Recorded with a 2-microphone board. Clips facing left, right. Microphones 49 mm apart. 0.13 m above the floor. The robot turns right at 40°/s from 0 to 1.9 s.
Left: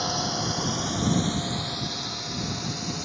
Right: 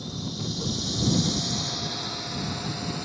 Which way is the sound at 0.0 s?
70° left (ahead or behind).